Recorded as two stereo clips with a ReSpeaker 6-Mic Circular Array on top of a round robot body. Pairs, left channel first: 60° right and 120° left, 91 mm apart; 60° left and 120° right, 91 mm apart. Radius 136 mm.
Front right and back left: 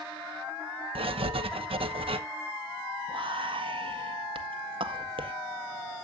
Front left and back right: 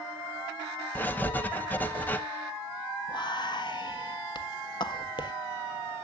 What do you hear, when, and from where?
0.9 s writing: 130° left, 1.0 m
3.1 s whispering: 100° left, 1.6 m